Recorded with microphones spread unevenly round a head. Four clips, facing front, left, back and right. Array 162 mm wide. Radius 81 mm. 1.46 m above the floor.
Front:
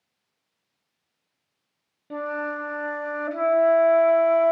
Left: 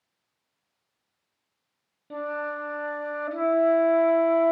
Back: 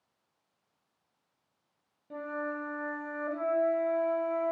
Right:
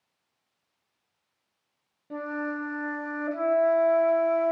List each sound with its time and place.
2.1 s a flute: 5° left, 1.4 m